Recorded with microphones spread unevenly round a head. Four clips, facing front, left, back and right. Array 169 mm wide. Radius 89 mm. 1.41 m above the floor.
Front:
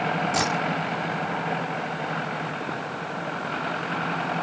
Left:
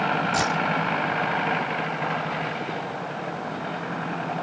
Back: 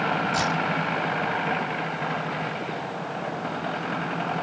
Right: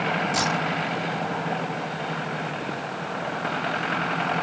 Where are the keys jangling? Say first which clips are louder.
Left 1 dB, even; 40° left.